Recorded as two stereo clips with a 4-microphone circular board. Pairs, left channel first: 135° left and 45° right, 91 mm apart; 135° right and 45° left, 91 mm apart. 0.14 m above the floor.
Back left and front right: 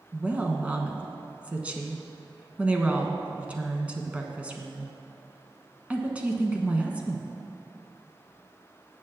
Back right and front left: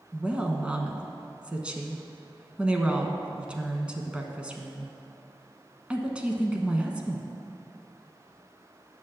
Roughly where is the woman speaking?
Ahead.